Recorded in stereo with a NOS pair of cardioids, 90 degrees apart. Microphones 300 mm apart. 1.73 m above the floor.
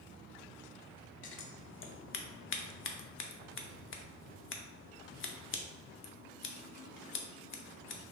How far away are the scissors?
About 0.5 m.